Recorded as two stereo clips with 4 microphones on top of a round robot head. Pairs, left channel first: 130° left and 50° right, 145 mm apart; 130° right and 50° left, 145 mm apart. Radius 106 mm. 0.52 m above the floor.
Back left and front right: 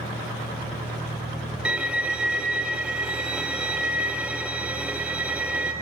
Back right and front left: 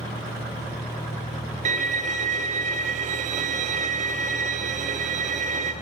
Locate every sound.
1.6 s a violin: 30° left, 0.7 m